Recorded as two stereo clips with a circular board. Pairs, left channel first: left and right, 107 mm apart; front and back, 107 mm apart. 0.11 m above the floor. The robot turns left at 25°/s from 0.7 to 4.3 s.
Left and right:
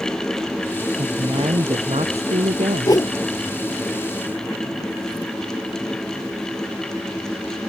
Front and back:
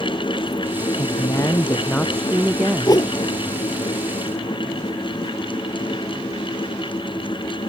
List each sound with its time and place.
1.0 s a woman speaking: 50° right; by 3.0 s 105° right
2.9 s a whoosh: 45° left; by 3.1 s 40° left